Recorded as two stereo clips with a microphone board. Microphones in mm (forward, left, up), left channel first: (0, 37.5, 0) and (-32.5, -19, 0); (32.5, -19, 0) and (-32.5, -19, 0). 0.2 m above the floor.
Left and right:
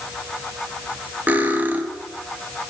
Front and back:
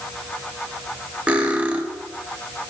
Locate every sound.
1.3 s cutlery clinking: 135° right, 0.8 m